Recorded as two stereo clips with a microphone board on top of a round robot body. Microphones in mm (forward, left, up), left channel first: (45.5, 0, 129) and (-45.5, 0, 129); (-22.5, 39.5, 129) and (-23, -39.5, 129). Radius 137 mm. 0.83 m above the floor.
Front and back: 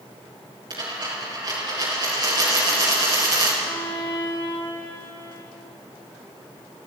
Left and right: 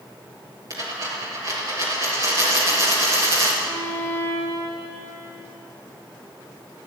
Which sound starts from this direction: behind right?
A dropped coin, at 0.7 s.